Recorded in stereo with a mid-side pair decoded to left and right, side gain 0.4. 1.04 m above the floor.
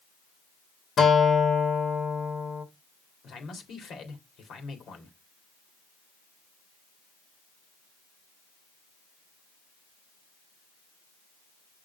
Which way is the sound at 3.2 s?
70° left.